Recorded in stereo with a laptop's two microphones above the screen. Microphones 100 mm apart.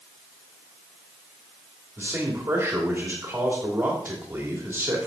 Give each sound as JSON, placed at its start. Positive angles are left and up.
{"t": 2.0, "sound": "a man speaking", "side_deg": -25, "distance_m": 2.5}